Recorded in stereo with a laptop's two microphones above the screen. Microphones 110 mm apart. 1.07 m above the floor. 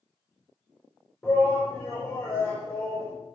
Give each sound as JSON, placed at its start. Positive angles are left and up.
{"t": 1.2, "sound": "a shout", "side_deg": 20, "distance_m": 3.5}